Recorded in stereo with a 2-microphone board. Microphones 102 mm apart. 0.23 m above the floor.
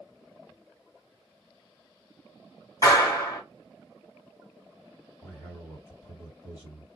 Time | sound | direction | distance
2.8 | a clap | 35° left (ahead or behind) | 1.8 m
5.2 | a man speaking | 35° left (ahead or behind) | 1.7 m